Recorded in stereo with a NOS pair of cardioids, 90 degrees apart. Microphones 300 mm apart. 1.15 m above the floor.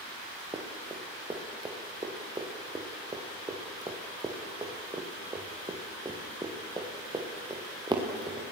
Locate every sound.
0.5 s running footsteps: 15° right, 5 m